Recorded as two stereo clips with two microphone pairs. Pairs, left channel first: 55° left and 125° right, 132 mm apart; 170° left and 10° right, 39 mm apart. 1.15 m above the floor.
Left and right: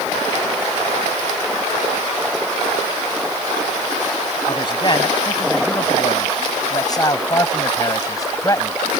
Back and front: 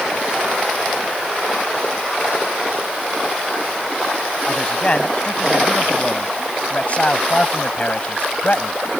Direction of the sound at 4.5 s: 110° left.